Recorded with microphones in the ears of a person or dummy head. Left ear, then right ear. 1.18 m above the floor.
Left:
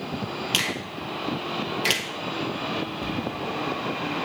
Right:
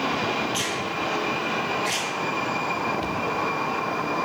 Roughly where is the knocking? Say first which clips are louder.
Right 3 dB; centre.